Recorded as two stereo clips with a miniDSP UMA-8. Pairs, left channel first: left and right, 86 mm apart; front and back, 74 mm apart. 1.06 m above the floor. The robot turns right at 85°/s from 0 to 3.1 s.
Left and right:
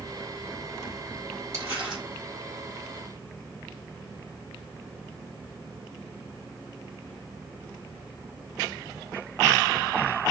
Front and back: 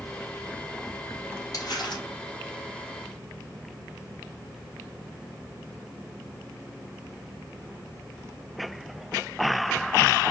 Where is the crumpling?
40° right, 3.5 m; by 2.0 s straight ahead, 3.5 m.